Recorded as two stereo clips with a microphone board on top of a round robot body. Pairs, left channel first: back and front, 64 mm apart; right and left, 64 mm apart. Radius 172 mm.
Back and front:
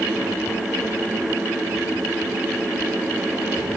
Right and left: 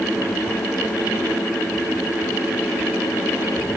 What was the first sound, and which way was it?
Only background noise.